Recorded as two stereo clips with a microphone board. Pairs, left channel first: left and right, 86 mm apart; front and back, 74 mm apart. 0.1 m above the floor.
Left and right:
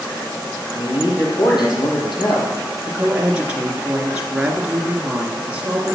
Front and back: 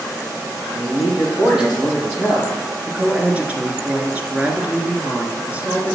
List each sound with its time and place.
0.8 s a man speaking: 105° left, 4 m
2.9 s a woman speaking: 140° right, 1.4 m